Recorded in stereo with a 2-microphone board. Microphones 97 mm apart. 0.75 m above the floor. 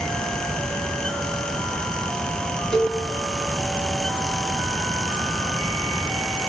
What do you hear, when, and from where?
2.7 s a cowbell: 5° left (ahead or behind), 1.4 m